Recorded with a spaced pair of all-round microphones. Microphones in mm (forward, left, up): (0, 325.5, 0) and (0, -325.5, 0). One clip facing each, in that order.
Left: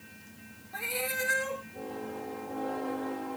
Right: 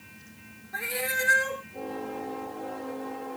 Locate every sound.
0.7 s a cat meowing: 50° right (ahead or behind)